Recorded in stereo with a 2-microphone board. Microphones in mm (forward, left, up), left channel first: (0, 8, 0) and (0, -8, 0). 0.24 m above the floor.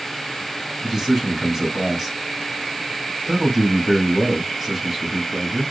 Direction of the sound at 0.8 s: 15° right (ahead or behind).